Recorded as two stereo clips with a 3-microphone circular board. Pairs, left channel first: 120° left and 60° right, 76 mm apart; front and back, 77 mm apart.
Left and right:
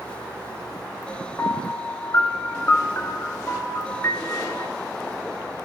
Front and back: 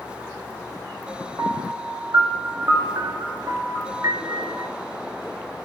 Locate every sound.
1.4 s a piano: 160° left, 1.1 m